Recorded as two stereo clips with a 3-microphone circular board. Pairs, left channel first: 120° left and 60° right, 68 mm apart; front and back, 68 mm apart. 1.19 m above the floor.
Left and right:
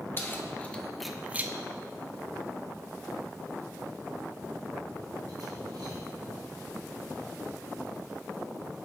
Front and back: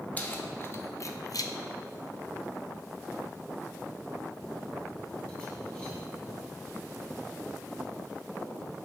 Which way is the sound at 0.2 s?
65° left.